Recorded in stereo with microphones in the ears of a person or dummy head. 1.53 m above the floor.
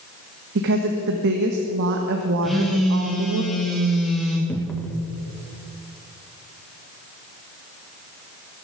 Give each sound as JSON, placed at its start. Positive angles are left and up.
{"t": 0.6, "sound": "a woman speaking", "side_deg": -65, "distance_m": 1.4}
{"t": 2.4, "sound": "a phone buzzing", "side_deg": 0, "distance_m": 2.5}
{"t": 4.5, "sound": "a cupboard door", "side_deg": 5, "distance_m": 1.1}